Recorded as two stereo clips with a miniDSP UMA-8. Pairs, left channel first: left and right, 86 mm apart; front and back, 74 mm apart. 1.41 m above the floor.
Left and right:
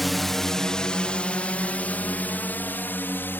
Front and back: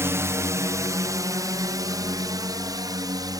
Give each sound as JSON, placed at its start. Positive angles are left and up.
{"t": 0.0, "sound": "a drone", "azimuth_deg": 180}